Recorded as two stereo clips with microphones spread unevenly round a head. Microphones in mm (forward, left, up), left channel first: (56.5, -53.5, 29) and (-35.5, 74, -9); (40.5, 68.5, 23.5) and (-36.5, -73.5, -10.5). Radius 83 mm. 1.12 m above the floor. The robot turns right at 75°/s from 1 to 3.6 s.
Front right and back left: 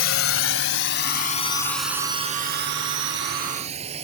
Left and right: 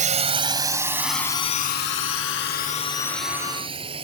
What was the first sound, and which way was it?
A drone, 70° right.